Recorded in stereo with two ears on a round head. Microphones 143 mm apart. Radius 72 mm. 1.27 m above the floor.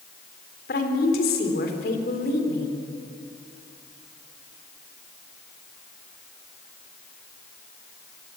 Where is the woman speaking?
65° left (ahead or behind), 3 m.